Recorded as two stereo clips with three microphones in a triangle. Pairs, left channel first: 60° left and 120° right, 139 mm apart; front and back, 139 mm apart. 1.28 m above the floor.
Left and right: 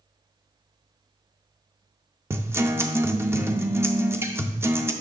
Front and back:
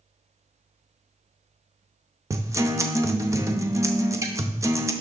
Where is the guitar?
155° right, 0.6 m.